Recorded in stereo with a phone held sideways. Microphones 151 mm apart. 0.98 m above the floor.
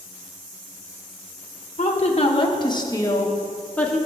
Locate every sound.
1.8 s a woman speaking: 50° left (ahead or behind), 1.0 m; by 4.0 s 5° left (ahead or behind), 1.4 m